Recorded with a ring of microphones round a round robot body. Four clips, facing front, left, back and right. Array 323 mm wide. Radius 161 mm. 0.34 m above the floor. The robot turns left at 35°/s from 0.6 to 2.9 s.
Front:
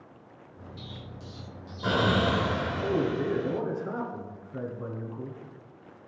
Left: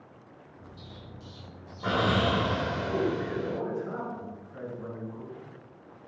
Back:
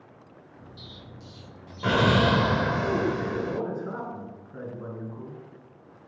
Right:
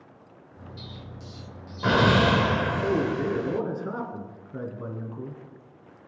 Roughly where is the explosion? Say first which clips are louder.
Right 4 dB, front 3 dB; right.